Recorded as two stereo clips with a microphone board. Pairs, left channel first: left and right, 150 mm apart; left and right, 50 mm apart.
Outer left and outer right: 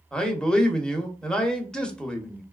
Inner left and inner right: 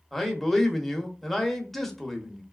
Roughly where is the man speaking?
Centre.